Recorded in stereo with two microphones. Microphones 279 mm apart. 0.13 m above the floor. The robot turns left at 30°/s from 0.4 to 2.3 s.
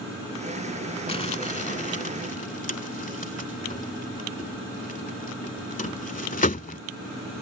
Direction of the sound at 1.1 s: 20° left (ahead or behind).